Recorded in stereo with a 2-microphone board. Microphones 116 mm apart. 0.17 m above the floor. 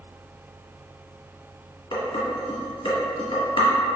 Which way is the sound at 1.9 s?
50° left (ahead or behind).